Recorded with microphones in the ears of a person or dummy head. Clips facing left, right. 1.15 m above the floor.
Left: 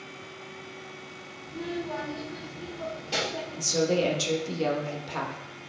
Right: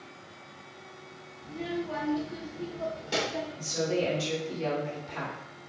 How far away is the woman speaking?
About 1.0 m.